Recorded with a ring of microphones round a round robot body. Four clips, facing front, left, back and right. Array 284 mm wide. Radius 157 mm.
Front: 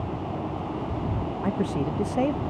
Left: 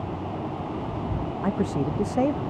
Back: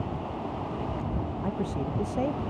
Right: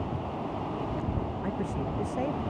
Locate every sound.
1.4 s a man speaking: 65° left